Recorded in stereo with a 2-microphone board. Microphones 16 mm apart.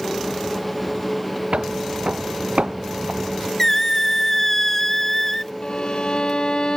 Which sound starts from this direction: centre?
A squeak, at 3.6 s.